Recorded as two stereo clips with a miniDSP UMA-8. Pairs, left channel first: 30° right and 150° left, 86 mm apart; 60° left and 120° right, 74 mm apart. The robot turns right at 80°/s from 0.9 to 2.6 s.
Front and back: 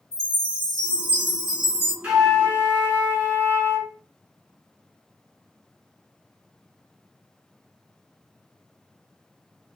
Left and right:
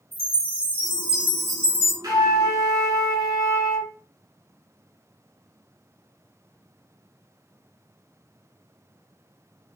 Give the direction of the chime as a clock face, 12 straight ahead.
2 o'clock.